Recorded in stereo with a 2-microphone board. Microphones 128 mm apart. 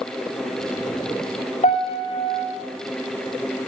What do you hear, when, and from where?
1.6 s a piano: 65° left (ahead or behind), 6 m